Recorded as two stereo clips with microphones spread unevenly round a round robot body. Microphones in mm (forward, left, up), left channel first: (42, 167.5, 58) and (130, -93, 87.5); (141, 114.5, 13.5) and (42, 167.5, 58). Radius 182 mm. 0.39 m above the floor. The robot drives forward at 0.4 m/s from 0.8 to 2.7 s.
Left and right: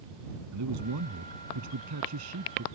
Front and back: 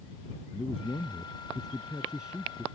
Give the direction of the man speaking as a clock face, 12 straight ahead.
4 o'clock.